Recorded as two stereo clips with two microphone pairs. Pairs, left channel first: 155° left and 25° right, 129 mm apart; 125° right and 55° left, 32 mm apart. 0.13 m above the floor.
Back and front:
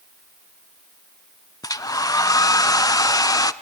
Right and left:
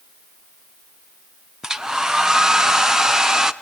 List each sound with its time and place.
1.6 s a hair dryer: 120° left, 0.5 m